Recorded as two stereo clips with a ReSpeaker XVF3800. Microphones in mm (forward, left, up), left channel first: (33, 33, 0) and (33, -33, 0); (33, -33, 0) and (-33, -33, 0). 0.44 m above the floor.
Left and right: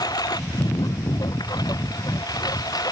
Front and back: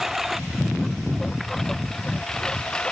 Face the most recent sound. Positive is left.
turn(degrees=80)